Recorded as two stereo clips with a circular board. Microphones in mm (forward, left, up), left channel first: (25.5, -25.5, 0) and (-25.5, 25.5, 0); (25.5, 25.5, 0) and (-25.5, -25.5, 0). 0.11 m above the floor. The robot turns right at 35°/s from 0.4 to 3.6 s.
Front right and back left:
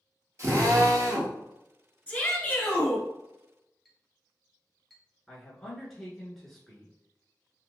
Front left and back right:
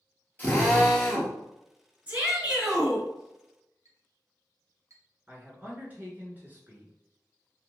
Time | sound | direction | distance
0.4 | a drill | 105° left | 1.3 m
2.1 | a shout | 90° right | 1.8 m
3.9 | a clink | 135° right | 1.3 m
5.3 | a man speaking | 125° right | 1.1 m